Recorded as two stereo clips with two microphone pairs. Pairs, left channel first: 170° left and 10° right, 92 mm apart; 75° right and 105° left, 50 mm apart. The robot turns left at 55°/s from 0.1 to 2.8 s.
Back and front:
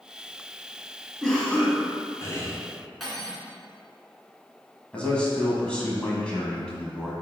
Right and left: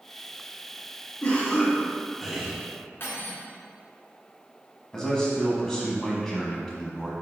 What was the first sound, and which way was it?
A cough, 110° right.